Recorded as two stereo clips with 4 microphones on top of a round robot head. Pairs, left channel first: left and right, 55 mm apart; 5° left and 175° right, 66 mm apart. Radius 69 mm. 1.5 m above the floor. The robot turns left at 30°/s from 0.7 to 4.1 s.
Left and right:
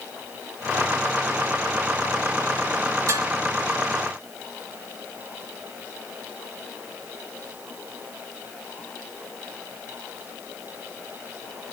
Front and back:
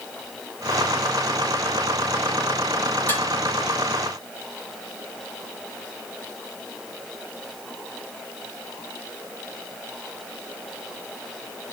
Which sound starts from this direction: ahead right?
Dishes clattering, at 3.1 s.